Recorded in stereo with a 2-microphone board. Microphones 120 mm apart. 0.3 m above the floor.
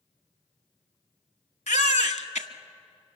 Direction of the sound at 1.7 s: 75° left (ahead or behind).